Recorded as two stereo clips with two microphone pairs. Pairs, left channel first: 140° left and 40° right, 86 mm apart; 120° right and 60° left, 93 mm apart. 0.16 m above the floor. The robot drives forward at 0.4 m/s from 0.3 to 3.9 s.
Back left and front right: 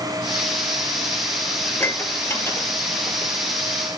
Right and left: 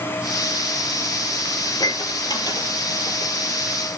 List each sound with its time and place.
1.6 s dishes clattering: 160° right, 2.0 m; by 3.3 s 165° right, 2.5 m